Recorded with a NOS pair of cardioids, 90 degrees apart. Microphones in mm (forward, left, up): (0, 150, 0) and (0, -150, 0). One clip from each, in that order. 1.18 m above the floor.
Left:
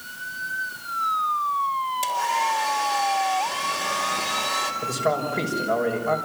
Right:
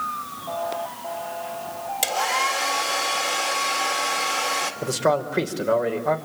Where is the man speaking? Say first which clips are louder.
Right 2 dB; 65° right, 5.5 m.